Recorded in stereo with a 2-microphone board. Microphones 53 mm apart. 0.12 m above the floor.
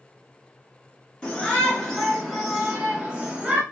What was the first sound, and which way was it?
A shout, 15° left (ahead or behind).